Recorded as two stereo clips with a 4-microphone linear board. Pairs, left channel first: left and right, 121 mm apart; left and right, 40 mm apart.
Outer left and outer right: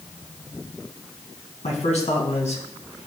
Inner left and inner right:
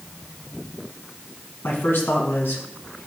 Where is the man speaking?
75° left (ahead or behind), 2.5 m; by 3.1 s 70° left (ahead or behind), 1.7 m.